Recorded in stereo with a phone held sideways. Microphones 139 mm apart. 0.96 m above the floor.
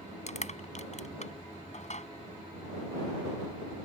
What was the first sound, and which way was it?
Crushing, 55° left (ahead or behind).